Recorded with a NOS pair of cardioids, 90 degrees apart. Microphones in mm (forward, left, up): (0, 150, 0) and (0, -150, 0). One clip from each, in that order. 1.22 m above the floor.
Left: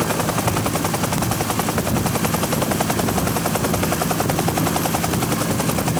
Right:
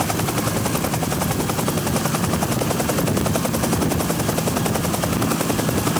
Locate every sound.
Only background noise.